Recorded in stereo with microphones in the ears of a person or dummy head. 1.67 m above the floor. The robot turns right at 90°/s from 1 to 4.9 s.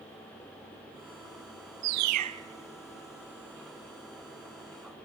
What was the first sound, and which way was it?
A bird, 70° right.